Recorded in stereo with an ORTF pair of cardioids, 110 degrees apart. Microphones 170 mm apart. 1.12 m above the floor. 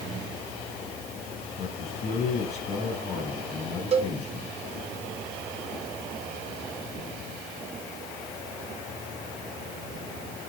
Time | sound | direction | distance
1.6 | a man speaking | 40° left | 6 m
3.9 | a cowbell | 35° right | 1.2 m